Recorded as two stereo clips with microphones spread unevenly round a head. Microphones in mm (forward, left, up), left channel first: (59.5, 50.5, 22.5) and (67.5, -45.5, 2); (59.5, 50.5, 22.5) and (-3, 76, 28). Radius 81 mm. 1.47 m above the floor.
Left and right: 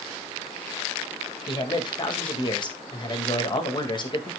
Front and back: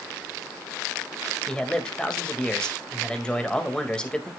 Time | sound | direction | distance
1.5 | a man speaking | 55° left | 2.0 m